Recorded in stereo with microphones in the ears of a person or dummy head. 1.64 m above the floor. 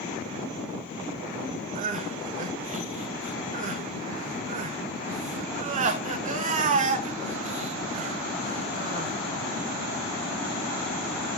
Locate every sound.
1.8 s crying: 45° right (ahead or behind), 1.1 m